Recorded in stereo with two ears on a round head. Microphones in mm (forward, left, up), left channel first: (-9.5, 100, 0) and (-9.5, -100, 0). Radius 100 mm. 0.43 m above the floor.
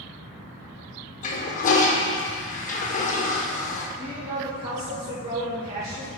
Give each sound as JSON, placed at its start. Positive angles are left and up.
{"t": 1.2, "sound": "a toilet flushing", "side_deg": 35, "distance_m": 0.7}
{"t": 4.0, "sound": "a woman speaking", "side_deg": -30, "distance_m": 1.3}